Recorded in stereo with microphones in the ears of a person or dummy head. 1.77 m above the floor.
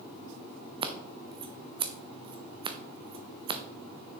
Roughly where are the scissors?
Right.